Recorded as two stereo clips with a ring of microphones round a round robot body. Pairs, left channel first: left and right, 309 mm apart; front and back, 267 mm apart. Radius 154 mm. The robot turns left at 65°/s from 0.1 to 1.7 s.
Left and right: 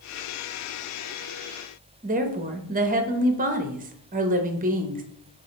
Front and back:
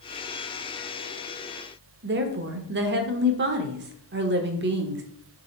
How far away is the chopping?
No chopping in this recording.